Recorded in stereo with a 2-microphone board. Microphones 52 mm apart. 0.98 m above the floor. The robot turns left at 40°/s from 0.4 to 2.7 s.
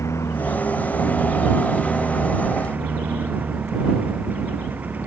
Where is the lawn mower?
60° left; by 5.1 s 30° right.